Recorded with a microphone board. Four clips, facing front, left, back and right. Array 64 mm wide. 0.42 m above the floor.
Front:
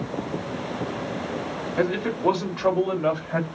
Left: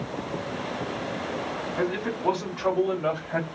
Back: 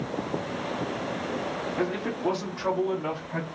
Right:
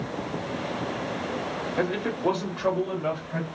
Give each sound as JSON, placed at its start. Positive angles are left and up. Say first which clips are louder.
{"t": 1.8, "sound": "a man speaking", "louder": "right 1 dB, front 7 dB", "azimuth_deg": -35, "distance_m": 1.2}